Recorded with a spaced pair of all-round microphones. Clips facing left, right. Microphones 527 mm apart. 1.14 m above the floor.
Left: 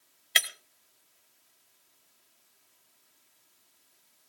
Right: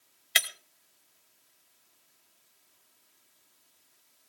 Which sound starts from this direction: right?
Breaking glass, at 0.3 s.